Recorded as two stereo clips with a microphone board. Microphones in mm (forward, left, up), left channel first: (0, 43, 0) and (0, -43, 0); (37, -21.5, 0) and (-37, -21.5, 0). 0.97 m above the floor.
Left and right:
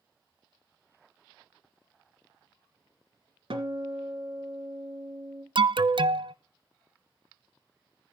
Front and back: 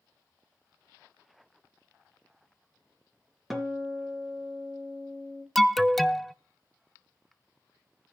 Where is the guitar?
90° right, 3 m.